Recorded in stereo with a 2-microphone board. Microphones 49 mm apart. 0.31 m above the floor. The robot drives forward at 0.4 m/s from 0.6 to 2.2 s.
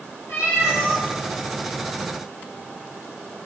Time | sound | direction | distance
0.3 | a cat meowing | 60° left (ahead or behind) | 3 m